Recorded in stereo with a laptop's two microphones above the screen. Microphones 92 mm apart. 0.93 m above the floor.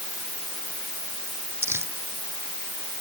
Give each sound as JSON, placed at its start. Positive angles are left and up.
{"t": 1.6, "sound": "crumpling", "side_deg": -30}